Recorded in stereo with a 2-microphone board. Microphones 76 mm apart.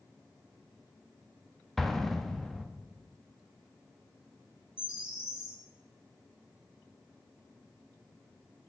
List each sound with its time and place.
1.8 s an explosion: 5° left (ahead or behind), 0.6 m
4.8 s a bird: 15° right (ahead or behind), 1.6 m